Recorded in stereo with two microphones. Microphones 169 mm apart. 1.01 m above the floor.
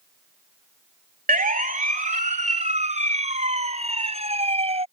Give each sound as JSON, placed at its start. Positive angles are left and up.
{"t": 1.3, "sound": "a siren", "side_deg": -55}